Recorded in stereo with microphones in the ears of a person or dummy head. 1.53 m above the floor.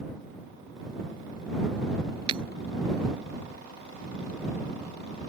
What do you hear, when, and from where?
2.3 s breaking glass: 35° right (ahead or behind)